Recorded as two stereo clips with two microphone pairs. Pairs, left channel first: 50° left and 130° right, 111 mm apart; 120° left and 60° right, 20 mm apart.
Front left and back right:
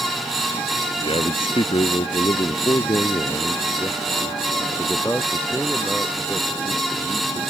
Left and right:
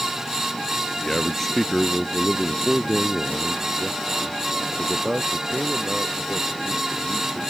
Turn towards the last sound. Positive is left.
turn(degrees=-35)